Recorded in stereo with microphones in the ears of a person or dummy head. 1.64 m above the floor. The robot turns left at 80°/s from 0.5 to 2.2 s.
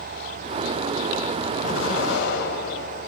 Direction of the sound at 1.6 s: 115° left.